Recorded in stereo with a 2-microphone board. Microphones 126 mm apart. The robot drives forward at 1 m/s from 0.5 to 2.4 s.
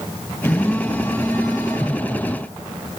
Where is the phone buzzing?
15° left (ahead or behind), 5.5 m; by 2.0 s 10° left (ahead or behind), 7 m.